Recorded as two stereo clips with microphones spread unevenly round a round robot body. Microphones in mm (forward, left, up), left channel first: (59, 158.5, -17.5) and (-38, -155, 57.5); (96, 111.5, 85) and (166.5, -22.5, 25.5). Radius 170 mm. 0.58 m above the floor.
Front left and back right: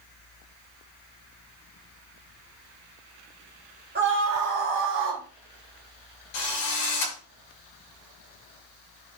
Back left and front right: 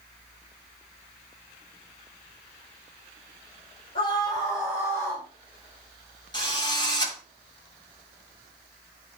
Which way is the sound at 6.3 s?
55° left.